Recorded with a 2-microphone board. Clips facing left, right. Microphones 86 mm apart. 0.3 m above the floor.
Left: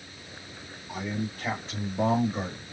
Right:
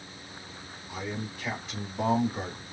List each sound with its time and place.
0.9 s a man speaking: 50° left (ahead or behind), 2 m; by 2.6 s 20° left (ahead or behind), 1.5 m